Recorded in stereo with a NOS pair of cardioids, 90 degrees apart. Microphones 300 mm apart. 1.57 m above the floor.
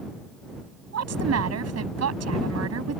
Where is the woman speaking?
55° right.